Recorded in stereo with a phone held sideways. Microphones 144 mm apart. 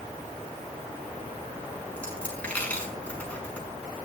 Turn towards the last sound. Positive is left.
turn(degrees=10)  # may be behind; listen again after turning